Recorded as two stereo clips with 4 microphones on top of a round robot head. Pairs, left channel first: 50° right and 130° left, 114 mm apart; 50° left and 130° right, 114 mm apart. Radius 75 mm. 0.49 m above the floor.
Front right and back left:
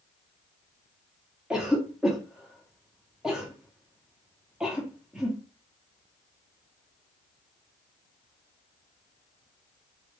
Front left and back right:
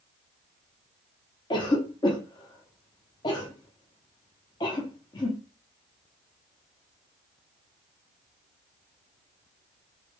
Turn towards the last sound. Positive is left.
turn(degrees=50)